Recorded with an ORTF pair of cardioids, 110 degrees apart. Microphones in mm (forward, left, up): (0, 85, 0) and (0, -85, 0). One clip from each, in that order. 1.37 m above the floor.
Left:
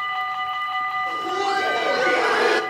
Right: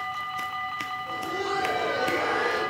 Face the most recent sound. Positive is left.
turn(degrees=75)